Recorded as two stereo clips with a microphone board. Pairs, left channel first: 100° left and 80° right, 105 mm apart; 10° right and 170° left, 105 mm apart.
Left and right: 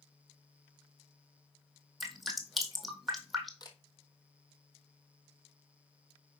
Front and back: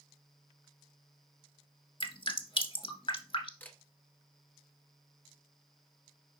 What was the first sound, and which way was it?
Dripping, 10° left.